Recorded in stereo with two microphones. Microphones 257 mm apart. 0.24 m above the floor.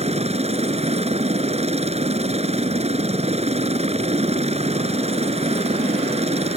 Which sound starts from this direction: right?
A helicopter, at 0.0 s.